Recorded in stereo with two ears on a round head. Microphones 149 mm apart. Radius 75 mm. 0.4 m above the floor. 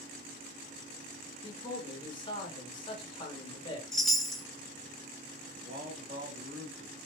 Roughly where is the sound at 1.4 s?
Left.